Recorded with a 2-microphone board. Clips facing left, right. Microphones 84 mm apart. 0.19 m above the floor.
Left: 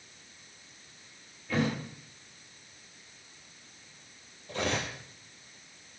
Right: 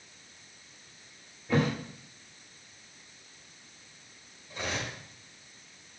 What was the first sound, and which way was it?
A thud, 25° right (ahead or behind).